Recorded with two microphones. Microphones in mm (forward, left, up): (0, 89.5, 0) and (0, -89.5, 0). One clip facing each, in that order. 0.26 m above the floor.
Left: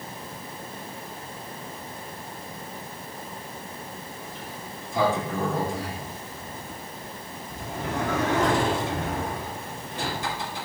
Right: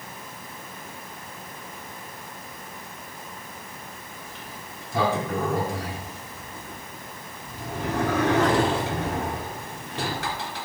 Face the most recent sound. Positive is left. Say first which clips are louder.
# left 3 dB
turn(degrees=-70)  # may be behind; listen again after turning